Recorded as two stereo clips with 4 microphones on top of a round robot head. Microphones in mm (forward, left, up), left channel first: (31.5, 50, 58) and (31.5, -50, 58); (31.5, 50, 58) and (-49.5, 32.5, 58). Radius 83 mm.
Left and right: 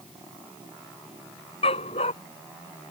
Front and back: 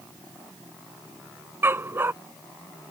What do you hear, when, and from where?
1.6 s a dog barking: 130° left